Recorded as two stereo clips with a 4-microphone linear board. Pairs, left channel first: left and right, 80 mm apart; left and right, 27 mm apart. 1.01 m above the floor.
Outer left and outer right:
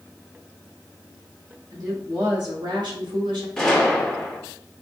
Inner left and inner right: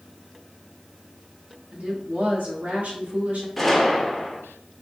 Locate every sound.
1.7 s a woman speaking: 60° right (ahead or behind), 1.8 m; by 3.5 s 80° right, 1.2 m
3.6 s a gunshot: 10° left (ahead or behind), 0.8 m